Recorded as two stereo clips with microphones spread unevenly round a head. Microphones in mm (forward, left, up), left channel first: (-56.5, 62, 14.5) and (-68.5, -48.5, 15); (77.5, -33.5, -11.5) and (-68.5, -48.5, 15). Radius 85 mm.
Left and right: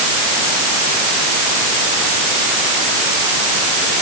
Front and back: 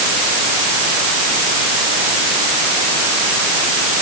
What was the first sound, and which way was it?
Only background noise.